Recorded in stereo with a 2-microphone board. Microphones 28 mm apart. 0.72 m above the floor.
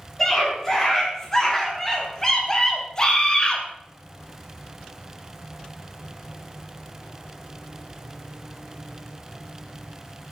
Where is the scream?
10° left (ahead or behind), 6.5 m; by 3.6 s 30° left (ahead or behind), 2.5 m.